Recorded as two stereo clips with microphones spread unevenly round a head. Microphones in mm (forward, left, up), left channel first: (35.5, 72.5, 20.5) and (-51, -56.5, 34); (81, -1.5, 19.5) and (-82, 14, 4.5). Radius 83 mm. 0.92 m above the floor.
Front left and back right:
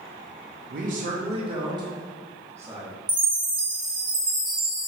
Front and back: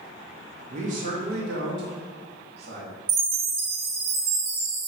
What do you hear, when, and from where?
0.7 s a man speaking: 145° right, 0.6 m; by 2.9 s 155° left, 1.5 m
3.1 s a chime: 175° left, 1.0 m